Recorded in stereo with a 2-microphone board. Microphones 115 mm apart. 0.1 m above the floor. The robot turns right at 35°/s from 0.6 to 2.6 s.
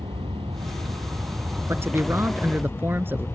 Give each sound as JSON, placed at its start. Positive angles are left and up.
{"t": 0.0, "sound": "an aircraft", "side_deg": -50}
{"t": 1.7, "sound": "a man speaking", "side_deg": -20}